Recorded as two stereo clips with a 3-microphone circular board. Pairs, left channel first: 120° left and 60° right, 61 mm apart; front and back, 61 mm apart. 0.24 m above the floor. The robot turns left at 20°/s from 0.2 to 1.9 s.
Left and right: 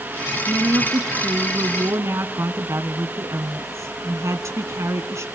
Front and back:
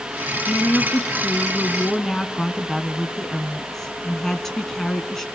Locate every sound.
0.5 s a woman speaking: 55° right, 2.5 m; by 5.2 s 85° right, 2.5 m